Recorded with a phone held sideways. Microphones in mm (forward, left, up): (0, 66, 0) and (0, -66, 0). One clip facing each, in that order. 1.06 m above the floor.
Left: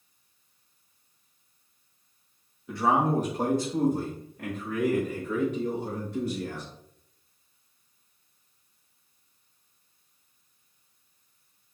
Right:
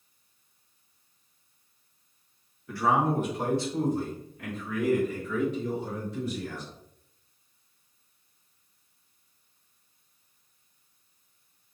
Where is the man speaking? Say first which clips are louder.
Left 1 dB; 20° left (ahead or behind), 0.7 m; by 6.7 s 65° left (ahead or behind), 3 m.